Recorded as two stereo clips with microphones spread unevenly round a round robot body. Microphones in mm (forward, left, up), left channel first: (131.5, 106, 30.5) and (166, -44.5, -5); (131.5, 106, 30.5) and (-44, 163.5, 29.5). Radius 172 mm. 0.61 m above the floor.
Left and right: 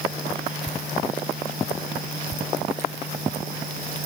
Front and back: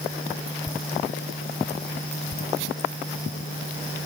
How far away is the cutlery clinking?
No cutlery clinking in this recording.